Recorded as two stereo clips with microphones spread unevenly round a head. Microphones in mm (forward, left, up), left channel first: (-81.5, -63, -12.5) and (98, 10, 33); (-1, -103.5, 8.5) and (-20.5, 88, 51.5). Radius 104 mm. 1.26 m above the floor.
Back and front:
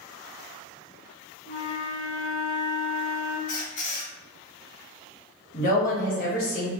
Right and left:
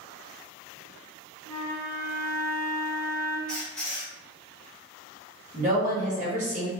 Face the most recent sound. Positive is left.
turn(degrees=150)